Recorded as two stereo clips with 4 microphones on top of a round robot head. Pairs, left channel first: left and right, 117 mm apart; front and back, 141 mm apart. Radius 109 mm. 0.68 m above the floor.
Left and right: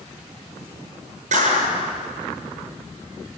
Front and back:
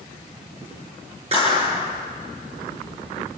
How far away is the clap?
About 8.5 m.